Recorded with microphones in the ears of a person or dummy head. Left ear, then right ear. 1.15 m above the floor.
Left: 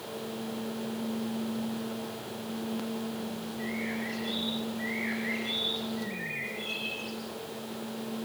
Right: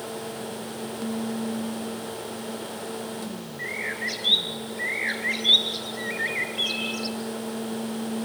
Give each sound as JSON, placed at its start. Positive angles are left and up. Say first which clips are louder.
{"t": 3.6, "sound": "a bird", "louder": "right 7 dB", "side_deg": -70, "distance_m": 3.0}